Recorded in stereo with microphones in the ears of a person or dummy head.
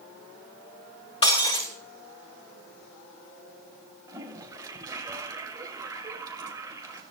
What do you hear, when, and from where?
1.2 s breaking glass: 30° left (ahead or behind), 3.5 m
4.1 s a toilet flushing: 20° right (ahead or behind), 2.5 m